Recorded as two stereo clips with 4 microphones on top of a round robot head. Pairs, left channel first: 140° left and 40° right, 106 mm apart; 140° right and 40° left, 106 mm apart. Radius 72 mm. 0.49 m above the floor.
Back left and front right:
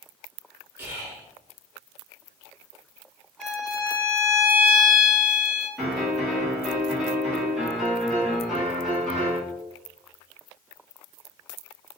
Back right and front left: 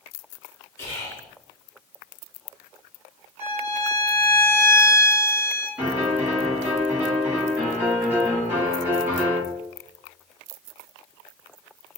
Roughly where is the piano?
Ahead left.